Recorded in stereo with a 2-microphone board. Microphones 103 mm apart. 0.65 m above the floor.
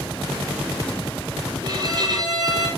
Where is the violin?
45° right (ahead or behind), 7 m.